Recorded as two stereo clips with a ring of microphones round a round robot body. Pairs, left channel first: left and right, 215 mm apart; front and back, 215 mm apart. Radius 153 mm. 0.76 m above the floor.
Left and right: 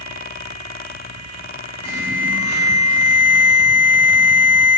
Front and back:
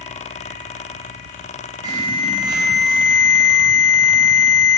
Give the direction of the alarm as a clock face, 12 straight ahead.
8 o'clock.